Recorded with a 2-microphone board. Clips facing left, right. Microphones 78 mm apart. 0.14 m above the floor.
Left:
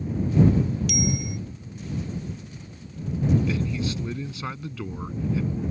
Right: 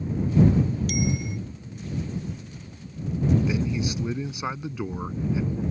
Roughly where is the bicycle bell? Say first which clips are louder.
Even; right.